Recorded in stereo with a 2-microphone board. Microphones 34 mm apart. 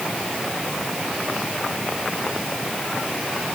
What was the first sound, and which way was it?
Only background noise.